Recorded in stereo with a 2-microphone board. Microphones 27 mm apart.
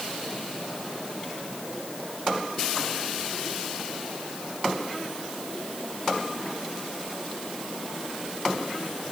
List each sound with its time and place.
Only background noise.